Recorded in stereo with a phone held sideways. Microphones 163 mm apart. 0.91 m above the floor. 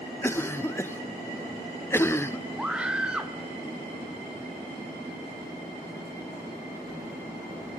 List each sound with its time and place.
0.2 s a cough: 15° left (ahead or behind), 0.6 m
2.6 s a scream: 5° right (ahead or behind), 2.5 m